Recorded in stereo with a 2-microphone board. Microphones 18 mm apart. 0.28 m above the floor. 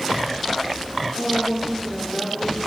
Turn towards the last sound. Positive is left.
turn(degrees=0)  # may be behind; listen again after turning